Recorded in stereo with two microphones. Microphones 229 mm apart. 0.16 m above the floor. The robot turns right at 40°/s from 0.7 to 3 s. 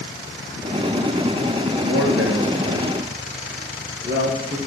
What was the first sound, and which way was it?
A man speaking, 60° right (ahead or behind).